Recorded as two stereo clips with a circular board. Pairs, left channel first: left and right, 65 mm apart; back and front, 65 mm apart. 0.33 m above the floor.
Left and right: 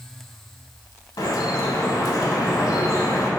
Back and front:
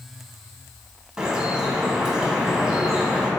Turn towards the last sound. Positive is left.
turn(degrees=80)